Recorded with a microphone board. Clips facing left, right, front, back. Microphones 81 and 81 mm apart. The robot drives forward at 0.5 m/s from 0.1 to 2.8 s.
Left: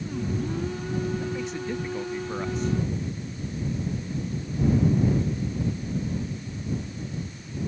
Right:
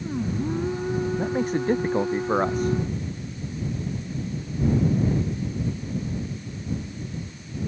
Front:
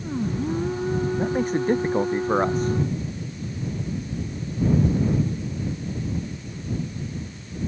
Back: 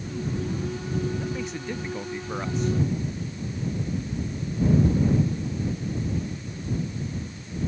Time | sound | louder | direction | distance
1.2 | a man speaking | right 6 dB, front 9 dB | 45° right | ?